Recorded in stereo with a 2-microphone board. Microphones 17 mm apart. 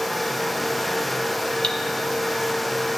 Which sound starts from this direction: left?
Cutlery clinking, at 1.6 s.